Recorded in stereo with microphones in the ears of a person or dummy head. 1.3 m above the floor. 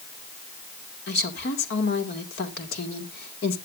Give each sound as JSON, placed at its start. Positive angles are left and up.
{"t": 1.1, "sound": "a woman speaking", "side_deg": 55, "distance_m": 2.0}